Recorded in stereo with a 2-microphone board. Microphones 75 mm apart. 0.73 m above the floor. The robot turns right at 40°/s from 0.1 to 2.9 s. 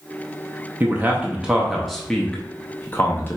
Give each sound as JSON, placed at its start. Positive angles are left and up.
{"t": 0.8, "sound": "a man speaking", "side_deg": -30, "distance_m": 0.6}